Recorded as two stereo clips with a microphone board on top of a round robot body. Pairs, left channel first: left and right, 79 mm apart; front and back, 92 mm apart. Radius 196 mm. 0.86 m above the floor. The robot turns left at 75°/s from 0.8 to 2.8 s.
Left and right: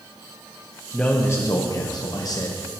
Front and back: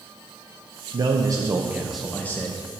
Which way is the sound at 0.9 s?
170° left.